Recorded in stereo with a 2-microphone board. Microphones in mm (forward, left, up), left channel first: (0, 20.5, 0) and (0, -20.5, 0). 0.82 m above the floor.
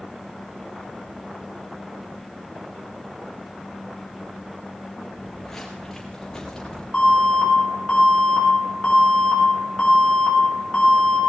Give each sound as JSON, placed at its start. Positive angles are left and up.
{"t": 5.1, "sound": "footsteps", "side_deg": 5, "distance_m": 3.5}
{"t": 6.9, "sound": "an alarm", "side_deg": 25, "distance_m": 6.0}